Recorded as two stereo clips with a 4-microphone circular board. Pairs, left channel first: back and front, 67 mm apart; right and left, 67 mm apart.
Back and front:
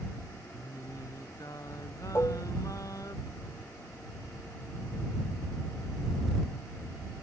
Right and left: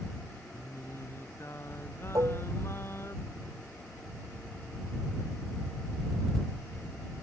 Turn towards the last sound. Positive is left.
turn(degrees=125)